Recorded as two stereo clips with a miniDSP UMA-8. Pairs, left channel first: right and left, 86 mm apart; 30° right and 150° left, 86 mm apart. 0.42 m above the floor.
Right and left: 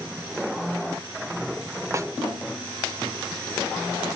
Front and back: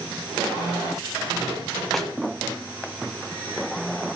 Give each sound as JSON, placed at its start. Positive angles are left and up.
{"t": 1.9, "sound": "a snare drum", "azimuth_deg": 55, "distance_m": 0.5}